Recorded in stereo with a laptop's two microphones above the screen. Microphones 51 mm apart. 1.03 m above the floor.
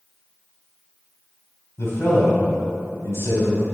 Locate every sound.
1.8 s a man speaking: 70° left (ahead or behind), 3 m